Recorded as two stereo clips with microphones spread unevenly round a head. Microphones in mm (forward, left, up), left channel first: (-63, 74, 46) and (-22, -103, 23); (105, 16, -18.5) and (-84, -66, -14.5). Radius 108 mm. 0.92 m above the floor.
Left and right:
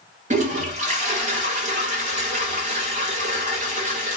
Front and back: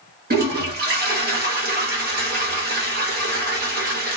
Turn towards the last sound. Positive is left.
turn(degrees=-115)